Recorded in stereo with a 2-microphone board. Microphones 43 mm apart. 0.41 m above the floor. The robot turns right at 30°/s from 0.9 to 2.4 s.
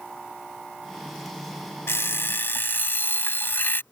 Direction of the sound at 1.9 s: 70° left (ahead or behind).